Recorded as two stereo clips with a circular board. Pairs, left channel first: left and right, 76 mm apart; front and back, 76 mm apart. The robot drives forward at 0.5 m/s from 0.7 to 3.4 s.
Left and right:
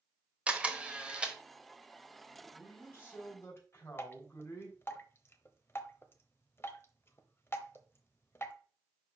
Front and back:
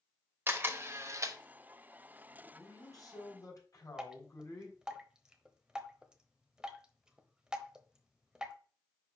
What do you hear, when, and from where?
0.5 s a camera shutter: 150° right, 0.9 m; by 1.4 s 165° right, 1.1 m
2.4 s a man speaking: 30° left, 4 m; by 4.8 s 35° left, 4 m
4.0 s dripping: 105° left, 0.9 m